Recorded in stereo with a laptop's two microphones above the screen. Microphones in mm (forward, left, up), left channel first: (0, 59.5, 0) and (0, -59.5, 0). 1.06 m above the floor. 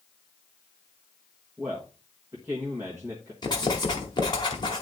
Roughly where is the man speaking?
Right.